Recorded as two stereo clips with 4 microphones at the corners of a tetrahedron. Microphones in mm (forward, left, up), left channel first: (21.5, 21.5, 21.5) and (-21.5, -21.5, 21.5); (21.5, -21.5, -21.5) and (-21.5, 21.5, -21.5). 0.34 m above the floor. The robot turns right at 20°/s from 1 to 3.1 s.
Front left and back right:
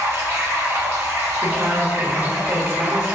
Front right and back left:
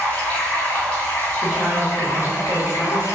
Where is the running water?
110° right, 1.3 m; by 3.1 s 65° right, 1.3 m.